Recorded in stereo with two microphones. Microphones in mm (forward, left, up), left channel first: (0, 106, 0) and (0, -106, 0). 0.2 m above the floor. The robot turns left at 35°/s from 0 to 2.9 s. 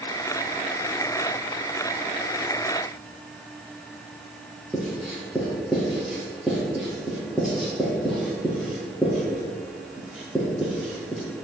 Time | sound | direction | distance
4.7 | writing | 5° right (ahead or behind) | 4 m